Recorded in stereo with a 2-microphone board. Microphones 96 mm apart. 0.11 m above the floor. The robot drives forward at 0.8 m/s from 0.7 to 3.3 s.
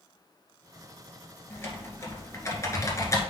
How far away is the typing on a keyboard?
About 2.0 m.